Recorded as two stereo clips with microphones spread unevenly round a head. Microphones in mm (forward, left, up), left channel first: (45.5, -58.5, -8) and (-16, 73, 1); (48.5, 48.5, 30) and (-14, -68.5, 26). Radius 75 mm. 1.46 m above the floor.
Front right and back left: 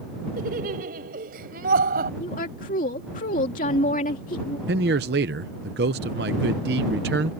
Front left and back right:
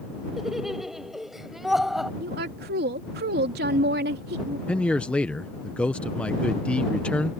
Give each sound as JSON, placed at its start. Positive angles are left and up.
{"t": 0.4, "sound": "laughter", "azimuth_deg": 155}
{"t": 2.2, "sound": "a woman speaking", "azimuth_deg": -110}
{"t": 4.7, "sound": "a man speaking", "azimuth_deg": 145}